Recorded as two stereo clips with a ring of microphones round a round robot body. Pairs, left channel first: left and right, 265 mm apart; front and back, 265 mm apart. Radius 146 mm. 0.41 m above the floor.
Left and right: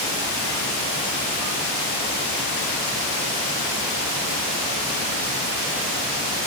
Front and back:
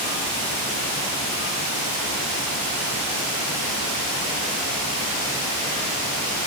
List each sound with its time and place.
Only background noise.